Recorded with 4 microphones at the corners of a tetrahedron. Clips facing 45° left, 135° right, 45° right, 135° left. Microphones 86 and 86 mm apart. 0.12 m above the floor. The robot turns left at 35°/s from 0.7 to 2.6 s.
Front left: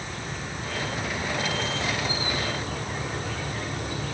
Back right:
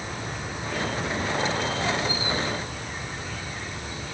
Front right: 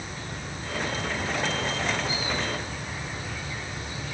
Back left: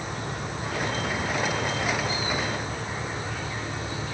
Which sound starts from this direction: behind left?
An insect, at 0.0 s.